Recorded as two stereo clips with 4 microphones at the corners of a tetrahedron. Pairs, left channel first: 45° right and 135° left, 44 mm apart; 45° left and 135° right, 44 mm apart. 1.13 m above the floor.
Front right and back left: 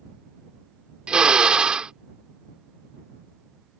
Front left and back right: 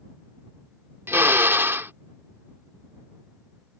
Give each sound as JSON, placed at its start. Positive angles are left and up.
{"t": 1.1, "sound": "a drill", "azimuth_deg": -155}